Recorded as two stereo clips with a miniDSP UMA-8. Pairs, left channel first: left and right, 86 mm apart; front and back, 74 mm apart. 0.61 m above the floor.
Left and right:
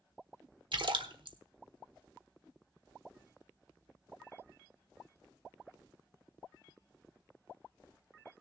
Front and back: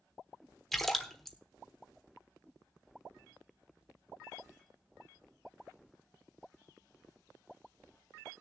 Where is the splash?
85° right, 1.2 m.